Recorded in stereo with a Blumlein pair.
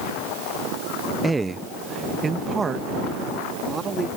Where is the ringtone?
I don't hear a ringtone.